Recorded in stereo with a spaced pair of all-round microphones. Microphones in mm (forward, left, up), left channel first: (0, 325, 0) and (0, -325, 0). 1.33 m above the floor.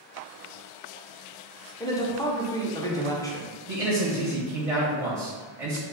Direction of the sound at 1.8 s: 5° left (ahead or behind).